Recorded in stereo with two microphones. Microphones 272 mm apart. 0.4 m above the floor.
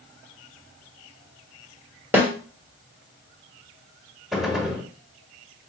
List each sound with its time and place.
2.1 s a snare drum: 5° right (ahead or behind), 1.3 m
4.3 s a gunshot: centre (ahead or behind), 0.9 m